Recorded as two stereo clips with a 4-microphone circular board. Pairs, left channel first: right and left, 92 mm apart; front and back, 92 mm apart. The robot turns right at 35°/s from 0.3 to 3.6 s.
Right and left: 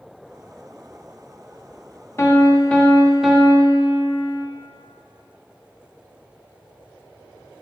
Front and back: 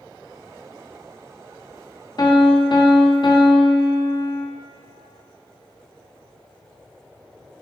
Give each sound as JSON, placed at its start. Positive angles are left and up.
{"t": 2.2, "sound": "a piano", "azimuth_deg": -35, "distance_m": 0.6}